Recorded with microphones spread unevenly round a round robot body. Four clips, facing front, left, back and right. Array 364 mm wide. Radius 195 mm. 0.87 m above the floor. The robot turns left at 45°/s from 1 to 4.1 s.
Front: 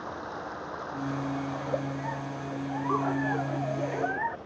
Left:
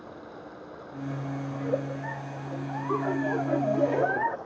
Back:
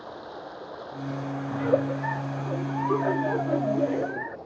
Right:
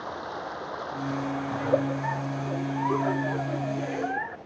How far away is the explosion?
No explosion in this recording.